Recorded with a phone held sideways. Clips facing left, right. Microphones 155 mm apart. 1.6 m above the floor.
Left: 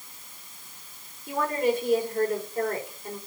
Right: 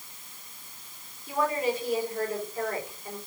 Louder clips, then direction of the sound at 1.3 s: Left 2 dB; 55° left (ahead or behind).